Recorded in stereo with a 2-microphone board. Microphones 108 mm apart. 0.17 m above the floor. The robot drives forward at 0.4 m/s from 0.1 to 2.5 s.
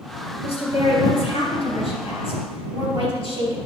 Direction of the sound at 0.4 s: 60° left (ahead or behind).